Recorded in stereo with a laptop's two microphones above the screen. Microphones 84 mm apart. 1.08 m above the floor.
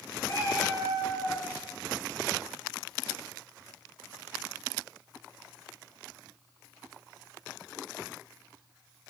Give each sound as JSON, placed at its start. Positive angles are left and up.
{"t": 0.2, "sound": "a cat meowing", "side_deg": 35, "distance_m": 0.9}